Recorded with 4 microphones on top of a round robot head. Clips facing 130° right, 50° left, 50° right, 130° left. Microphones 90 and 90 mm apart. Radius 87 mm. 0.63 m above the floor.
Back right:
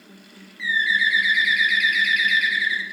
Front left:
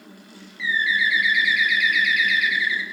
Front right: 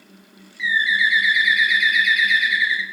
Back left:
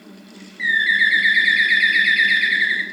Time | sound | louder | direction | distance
0.6 | a bird | even, back left 1 dB | 105° right | 0.8 m